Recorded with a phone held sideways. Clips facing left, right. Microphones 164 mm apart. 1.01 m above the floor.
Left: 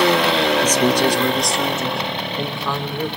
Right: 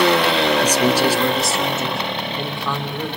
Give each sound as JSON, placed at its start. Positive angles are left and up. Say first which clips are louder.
{"t": 0.6, "sound": "a man speaking", "louder": "even", "side_deg": -10, "distance_m": 1.1}